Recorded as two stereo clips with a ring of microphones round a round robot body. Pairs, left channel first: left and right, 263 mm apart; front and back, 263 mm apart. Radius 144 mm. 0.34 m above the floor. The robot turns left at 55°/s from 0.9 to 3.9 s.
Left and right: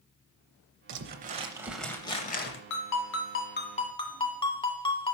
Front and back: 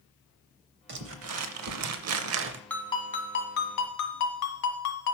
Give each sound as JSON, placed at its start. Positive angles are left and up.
{"t": 0.9, "sound": "crumpling", "azimuth_deg": -130, "distance_m": 0.6}
{"t": 2.7, "sound": "a ringtone", "azimuth_deg": 85, "distance_m": 1.7}